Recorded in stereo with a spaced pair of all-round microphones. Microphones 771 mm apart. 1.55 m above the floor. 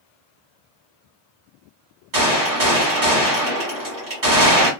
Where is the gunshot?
60° right (ahead or behind), 1.6 m.